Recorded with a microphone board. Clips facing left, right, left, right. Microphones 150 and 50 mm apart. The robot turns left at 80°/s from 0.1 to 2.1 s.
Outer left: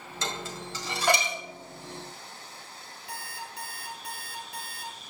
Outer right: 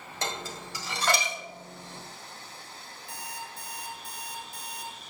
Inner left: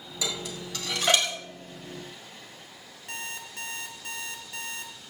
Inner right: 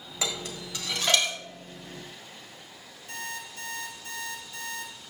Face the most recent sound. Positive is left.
turn(degrees=65)  # may be behind; listen again after turning